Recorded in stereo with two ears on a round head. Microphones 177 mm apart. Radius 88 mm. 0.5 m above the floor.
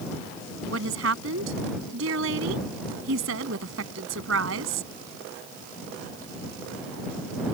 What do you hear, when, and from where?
0.7 s a woman speaking: 75° right (ahead or behind)